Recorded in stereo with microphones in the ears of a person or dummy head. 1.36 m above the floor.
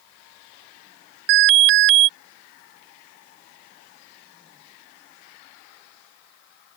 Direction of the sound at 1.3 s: 60° right (ahead or behind).